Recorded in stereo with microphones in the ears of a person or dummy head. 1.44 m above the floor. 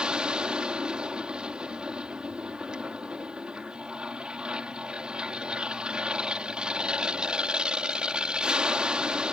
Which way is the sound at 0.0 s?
5° right (ahead or behind).